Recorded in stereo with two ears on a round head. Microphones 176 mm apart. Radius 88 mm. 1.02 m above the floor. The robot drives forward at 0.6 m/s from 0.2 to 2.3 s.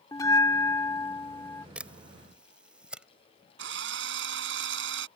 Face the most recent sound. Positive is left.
turn(degrees=-65)  # may be behind; listen again after turning